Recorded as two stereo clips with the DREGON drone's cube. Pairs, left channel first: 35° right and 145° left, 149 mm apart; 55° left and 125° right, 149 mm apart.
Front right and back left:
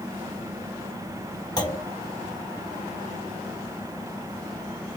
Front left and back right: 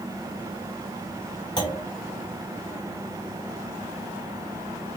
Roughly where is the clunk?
Ahead.